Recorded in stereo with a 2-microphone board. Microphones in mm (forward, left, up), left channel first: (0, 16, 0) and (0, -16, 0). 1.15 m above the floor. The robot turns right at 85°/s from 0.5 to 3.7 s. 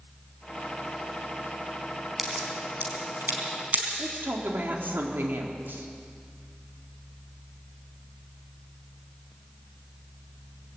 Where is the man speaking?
70° right (ahead or behind), 3.5 m.